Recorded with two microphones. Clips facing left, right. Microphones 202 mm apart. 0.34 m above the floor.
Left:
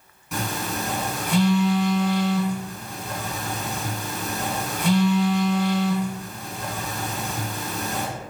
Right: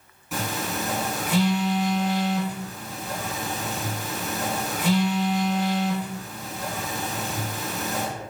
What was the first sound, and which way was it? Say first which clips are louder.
A phone buzzing: left 1 dB; centre (ahead or behind).